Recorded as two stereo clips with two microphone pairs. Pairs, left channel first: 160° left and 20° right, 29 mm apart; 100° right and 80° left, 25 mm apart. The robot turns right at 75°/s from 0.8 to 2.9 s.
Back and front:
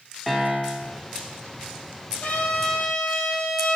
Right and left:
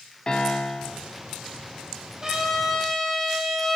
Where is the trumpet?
150° left, 3.5 m; by 3.8 s 160° right, 3.5 m.